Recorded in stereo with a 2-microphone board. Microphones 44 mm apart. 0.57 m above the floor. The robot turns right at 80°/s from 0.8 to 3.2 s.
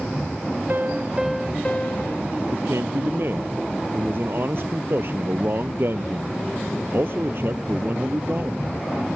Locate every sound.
0.7 s a piano: 45° right; by 2.2 s 70° left
2.5 s a man speaking: 110° right; by 8.6 s 55° right